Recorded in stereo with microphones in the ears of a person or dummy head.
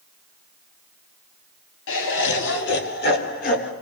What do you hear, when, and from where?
1.9 s laughter: 65° left (ahead or behind), 2.5 m; by 3.7 s 45° left (ahead or behind), 3 m